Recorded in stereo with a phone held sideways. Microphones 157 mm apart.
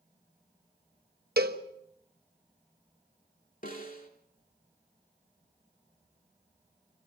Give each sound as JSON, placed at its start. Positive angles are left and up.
{"t": 1.4, "sound": "a cowbell", "side_deg": -75, "distance_m": 1.2}
{"t": 3.6, "sound": "a snare drum", "side_deg": 60, "distance_m": 3.0}